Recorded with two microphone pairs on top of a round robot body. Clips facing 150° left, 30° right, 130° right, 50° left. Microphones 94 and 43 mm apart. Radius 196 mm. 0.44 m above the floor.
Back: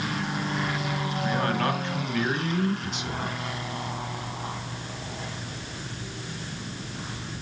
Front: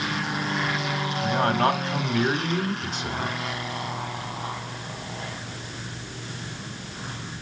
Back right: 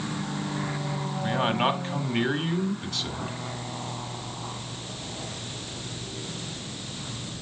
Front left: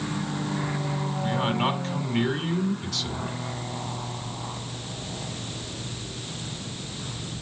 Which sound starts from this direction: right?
A man speaking, at 1.2 s.